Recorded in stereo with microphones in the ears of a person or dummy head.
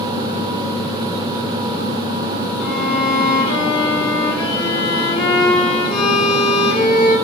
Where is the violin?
25° left (ahead or behind), 4 m.